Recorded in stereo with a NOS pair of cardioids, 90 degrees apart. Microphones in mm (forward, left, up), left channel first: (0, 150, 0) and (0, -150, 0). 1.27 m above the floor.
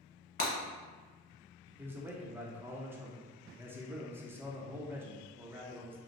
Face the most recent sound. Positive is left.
turn(degrees=-10)